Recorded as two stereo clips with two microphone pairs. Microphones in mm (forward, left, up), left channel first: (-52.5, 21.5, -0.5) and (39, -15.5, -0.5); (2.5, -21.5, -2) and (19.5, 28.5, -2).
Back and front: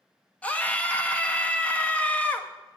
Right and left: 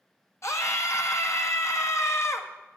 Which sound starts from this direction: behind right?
A scream, at 0.4 s.